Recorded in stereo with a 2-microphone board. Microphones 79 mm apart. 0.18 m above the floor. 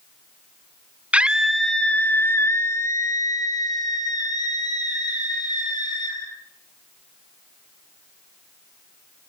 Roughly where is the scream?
Centre.